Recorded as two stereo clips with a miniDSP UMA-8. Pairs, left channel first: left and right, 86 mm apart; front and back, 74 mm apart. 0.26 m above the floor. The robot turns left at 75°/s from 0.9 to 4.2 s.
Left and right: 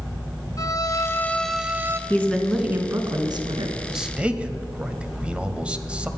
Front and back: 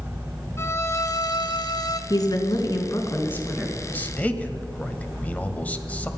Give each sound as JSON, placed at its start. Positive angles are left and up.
{"t": 0.6, "sound": "a violin", "azimuth_deg": 50, "distance_m": 0.9}
{"t": 2.1, "sound": "a woman speaking", "azimuth_deg": 30, "distance_m": 2.5}
{"t": 3.9, "sound": "a man speaking", "azimuth_deg": -10, "distance_m": 1.2}